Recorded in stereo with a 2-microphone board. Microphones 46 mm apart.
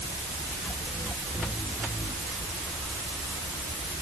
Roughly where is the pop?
I don't hear a pop.